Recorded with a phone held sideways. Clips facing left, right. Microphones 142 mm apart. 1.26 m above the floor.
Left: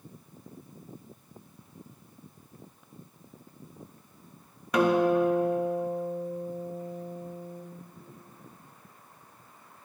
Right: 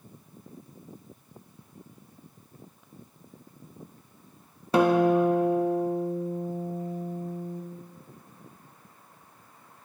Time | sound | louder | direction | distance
4.7 | a guitar | right 2 dB | 30° right (ahead or behind) | 0.6 m